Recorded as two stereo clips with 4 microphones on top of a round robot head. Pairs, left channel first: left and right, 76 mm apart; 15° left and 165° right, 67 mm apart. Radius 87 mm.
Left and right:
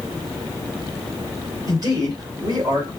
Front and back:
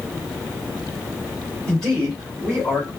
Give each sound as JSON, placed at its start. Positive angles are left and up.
{"t": 1.7, "sound": "a man speaking", "azimuth_deg": -65, "distance_m": 2.0}